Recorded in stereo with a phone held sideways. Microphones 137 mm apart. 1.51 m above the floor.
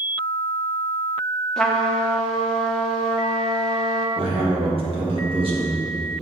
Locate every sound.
1.6 s a trumpet: 5° left (ahead or behind), 0.9 m
4.2 s a man speaking: 45° right (ahead or behind), 1.9 m